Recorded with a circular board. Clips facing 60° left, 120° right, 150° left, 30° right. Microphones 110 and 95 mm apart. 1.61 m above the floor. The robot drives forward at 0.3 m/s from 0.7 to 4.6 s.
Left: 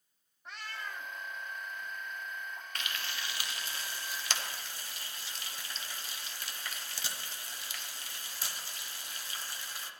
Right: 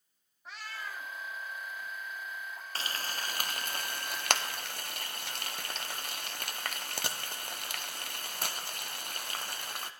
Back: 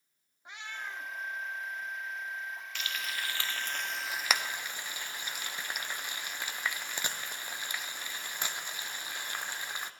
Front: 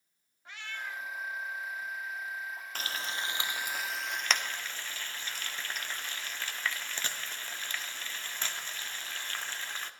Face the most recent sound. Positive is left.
turn(degrees=-135)